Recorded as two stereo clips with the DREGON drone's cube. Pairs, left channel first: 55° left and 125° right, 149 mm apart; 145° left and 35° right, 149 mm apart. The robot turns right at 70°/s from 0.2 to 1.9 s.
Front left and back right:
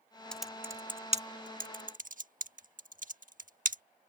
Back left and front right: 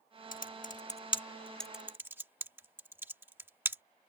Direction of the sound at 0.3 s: 140° left.